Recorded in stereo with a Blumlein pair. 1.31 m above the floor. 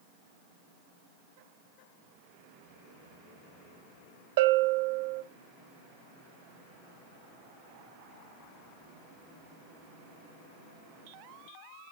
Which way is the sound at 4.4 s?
50° right.